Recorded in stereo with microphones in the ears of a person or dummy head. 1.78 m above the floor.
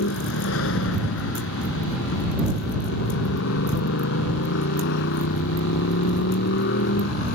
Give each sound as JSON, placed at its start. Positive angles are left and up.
{"t": 0.0, "sound": "a motorcycle", "side_deg": 80}